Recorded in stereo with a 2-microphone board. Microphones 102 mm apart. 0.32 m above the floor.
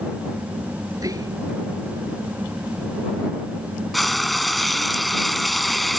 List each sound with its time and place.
0.9 s whispering: 35° right (ahead or behind)
3.9 s frying: centre (ahead or behind)